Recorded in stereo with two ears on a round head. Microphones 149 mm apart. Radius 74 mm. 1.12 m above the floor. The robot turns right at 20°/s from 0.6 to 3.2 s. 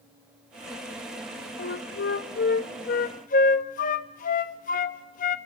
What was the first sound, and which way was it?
A flute, 70° left (ahead or behind).